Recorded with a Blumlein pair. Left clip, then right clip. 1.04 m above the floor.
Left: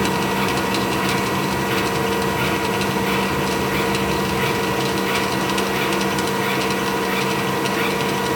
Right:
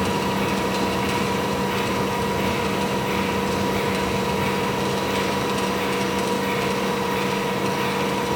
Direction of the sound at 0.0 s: 25° left.